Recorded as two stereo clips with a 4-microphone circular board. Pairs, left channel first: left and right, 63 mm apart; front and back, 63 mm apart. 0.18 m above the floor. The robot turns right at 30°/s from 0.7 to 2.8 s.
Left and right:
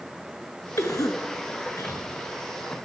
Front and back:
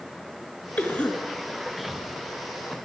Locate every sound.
0.8 s a cough: 60° left, 2.5 m; by 2.0 s 95° left, 2.5 m